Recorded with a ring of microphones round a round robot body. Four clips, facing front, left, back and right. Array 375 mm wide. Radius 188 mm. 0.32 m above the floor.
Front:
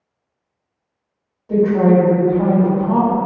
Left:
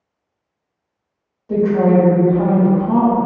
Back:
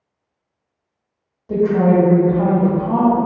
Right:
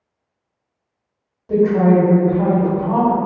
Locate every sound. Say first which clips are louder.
1.5 s a woman speaking: even, front 1 dB; 135° right, 1.2 m